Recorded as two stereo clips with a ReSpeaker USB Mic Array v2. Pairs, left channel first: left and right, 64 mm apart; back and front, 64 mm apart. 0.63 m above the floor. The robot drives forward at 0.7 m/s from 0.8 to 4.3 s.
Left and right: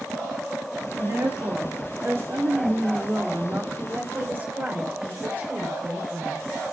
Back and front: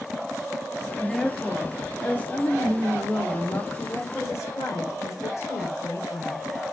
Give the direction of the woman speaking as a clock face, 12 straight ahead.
3 o'clock.